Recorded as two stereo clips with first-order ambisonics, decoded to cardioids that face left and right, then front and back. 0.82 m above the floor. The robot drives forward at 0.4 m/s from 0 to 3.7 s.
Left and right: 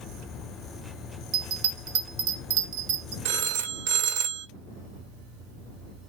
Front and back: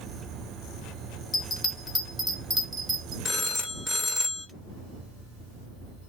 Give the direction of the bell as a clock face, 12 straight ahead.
2 o'clock.